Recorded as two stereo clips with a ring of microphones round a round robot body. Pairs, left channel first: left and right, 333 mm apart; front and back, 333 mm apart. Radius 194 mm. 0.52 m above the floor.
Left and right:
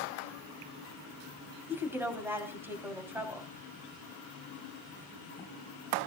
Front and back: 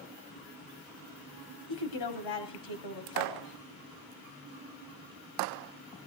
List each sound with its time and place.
1.7 s a woman speaking: 5° right, 4.5 m